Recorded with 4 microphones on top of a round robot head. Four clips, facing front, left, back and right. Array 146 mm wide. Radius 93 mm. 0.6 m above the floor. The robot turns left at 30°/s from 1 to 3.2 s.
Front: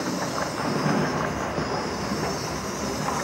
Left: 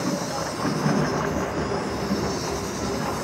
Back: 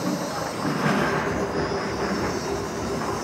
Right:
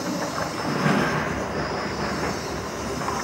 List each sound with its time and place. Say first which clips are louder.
0.0 s an insect: even, back 1 dB; 140° left, 7 m; by 3.2 s 70° left, 7 m